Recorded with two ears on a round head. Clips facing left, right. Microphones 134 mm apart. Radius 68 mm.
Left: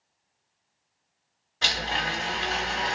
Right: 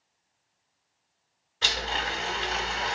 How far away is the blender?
About 2.5 m.